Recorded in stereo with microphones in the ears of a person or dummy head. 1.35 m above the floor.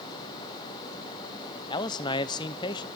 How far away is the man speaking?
About 0.5 m.